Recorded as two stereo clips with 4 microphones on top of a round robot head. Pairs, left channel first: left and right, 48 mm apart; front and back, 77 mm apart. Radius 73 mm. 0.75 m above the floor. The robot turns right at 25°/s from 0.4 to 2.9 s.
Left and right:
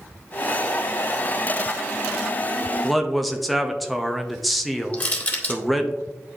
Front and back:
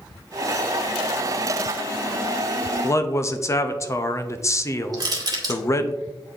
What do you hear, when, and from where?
2.8 s a man speaking: straight ahead, 0.6 m; by 5.9 s 5° left, 0.6 m
4.9 s crushing: 145° left, 1.9 m